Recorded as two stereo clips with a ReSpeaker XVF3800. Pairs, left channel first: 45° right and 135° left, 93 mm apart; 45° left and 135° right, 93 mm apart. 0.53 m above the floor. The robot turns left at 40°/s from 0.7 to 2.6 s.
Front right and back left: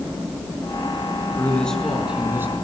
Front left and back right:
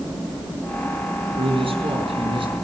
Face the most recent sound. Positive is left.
turn(degrees=-165)